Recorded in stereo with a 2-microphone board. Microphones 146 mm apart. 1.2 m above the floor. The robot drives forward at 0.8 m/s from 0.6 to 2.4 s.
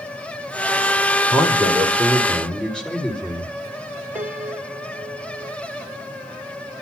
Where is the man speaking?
5° left (ahead or behind), 4.5 m.